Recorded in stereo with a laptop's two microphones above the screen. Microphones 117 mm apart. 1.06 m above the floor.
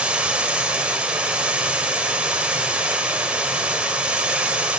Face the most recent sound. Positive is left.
turn(degrees=-10)  # may be behind; listen again after turning